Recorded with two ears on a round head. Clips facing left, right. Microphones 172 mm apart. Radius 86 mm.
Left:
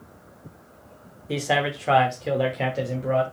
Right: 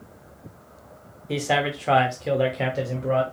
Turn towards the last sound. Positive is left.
turn(degrees=0)  # may be behind; listen again after turning